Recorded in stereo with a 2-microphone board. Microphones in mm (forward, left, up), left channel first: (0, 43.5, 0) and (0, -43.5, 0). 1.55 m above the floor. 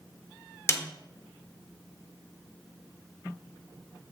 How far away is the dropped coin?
I don't hear a dropped coin.